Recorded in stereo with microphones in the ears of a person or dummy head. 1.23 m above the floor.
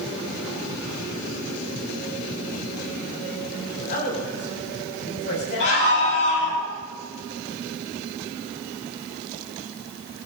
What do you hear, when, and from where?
3.8 s a man speaking: 50° left (ahead or behind), 7.5 m; by 6.6 s 65° left (ahead or behind), 7.5 m
5.6 s a scream: 70° left (ahead or behind), 8 m